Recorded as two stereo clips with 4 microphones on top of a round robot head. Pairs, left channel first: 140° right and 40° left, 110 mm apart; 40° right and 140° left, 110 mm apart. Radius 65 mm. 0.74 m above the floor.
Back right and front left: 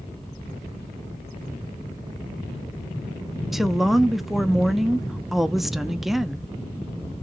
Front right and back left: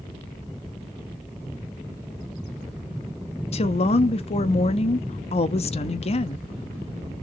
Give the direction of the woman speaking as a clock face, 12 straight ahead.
2 o'clock.